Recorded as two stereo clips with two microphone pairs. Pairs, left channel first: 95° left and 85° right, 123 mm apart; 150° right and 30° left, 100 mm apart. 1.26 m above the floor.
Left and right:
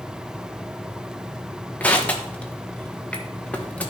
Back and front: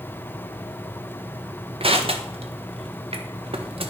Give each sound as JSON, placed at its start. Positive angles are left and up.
{"t": 1.8, "sound": "crushing", "azimuth_deg": 20, "distance_m": 1.3}